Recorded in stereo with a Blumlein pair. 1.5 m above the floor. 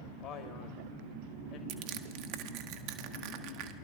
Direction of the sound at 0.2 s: 40° left.